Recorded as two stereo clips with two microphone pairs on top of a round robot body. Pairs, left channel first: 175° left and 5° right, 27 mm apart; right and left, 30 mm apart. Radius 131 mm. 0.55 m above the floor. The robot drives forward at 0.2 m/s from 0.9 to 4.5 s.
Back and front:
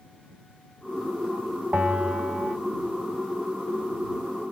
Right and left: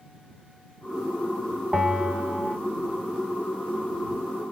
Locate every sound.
1.7 s a bell: 35° left, 1.6 m